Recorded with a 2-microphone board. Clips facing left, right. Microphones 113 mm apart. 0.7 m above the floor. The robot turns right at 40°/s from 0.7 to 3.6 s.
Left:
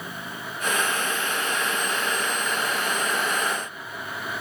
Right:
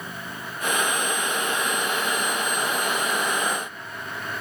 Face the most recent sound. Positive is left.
No sound to turn to.